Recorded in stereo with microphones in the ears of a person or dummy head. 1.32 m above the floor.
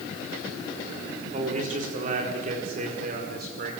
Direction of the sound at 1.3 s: 40° right (ahead or behind).